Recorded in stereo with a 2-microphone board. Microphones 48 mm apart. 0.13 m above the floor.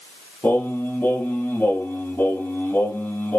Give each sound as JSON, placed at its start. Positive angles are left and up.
{"t": 0.4, "sound": "singing", "side_deg": 50, "distance_m": 2.5}